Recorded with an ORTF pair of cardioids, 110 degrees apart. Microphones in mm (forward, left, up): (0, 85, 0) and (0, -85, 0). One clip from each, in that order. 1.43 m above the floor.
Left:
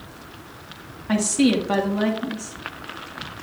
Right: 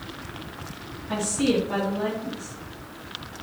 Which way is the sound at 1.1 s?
70° left.